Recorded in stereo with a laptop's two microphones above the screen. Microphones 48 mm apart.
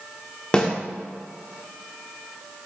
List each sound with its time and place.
0.5 s a snare drum: 15° left (ahead or behind), 0.8 m